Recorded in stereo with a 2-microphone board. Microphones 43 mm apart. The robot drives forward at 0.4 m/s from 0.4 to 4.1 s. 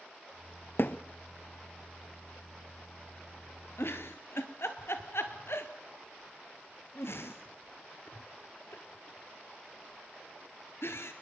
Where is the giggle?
65° left (ahead or behind), 1.5 m.